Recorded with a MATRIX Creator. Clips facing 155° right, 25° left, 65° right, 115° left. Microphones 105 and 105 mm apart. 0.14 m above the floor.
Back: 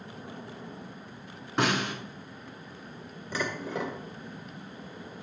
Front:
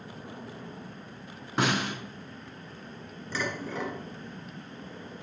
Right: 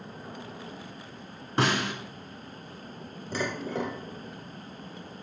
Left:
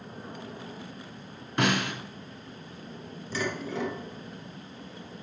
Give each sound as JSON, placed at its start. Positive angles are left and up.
{"t": 1.6, "sound": "a snare drum", "azimuth_deg": -65, "distance_m": 1.3}
{"t": 3.3, "sound": "dishes clattering", "azimuth_deg": -85, "distance_m": 1.4}